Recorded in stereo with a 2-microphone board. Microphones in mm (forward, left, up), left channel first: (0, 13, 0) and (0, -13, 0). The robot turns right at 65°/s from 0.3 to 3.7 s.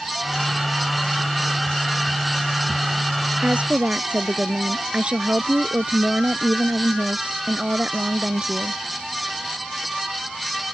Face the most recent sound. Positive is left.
turn(degrees=-45)  # may be behind; listen again after turning